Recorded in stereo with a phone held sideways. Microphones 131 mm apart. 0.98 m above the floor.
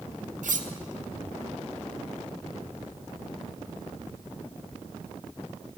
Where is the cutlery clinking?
75° right (ahead or behind), 0.5 m.